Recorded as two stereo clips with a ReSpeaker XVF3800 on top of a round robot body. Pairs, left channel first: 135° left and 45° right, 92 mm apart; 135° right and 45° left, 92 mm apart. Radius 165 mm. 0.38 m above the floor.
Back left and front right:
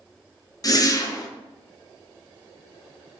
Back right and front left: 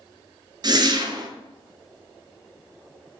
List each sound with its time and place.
0.6 s a whoosh: 85° left, 1.1 m